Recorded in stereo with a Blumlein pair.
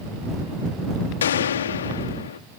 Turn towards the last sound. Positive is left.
turn(degrees=60)